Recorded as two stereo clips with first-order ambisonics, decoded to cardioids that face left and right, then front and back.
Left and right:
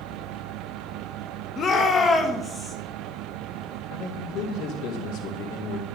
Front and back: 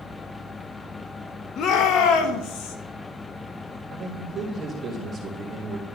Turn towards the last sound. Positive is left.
turn(degrees=110)